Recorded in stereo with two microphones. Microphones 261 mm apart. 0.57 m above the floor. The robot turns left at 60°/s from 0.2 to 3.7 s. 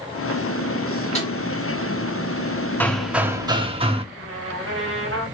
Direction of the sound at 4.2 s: 50° right (ahead or behind).